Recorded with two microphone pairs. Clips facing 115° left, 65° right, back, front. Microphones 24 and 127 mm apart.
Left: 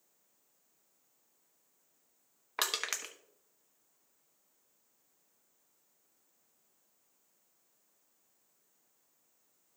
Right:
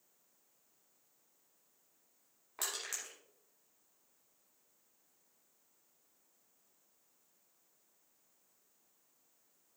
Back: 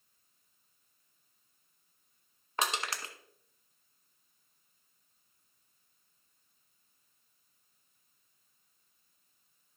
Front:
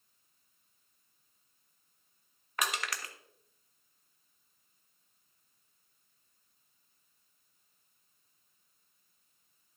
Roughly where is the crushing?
Behind left.